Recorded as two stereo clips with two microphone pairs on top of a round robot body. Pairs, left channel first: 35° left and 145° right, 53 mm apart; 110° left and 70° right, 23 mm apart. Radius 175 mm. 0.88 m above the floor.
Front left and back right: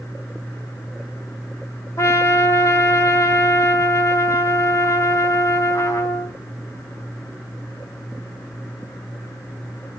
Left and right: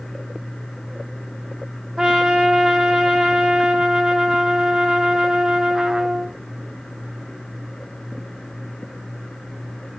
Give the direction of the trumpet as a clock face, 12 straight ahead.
12 o'clock.